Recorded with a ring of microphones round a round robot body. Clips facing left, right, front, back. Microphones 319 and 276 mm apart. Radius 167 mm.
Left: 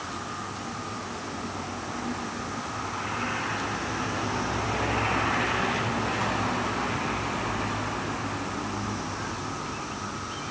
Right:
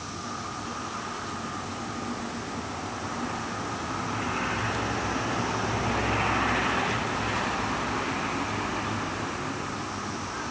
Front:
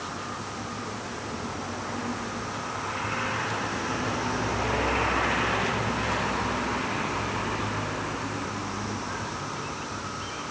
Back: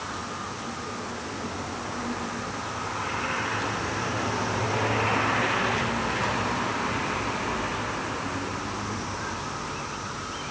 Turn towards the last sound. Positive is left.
No sound to turn to.